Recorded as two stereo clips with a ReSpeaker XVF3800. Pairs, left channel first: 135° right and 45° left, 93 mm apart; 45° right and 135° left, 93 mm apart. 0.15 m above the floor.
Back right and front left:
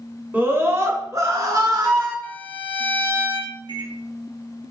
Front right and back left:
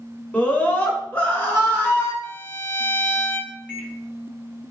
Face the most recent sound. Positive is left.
turn(degrees=30)